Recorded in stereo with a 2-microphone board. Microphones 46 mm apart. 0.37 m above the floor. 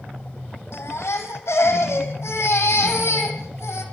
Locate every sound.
0.7 s a baby crying: 80° left, 4.5 m